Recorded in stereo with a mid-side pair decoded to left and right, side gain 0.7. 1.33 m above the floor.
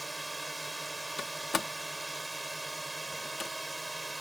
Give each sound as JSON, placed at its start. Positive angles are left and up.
{"t": 0.0, "sound": "a drone", "azimuth_deg": -10}
{"t": 1.2, "sound": "a door slam", "azimuth_deg": 20}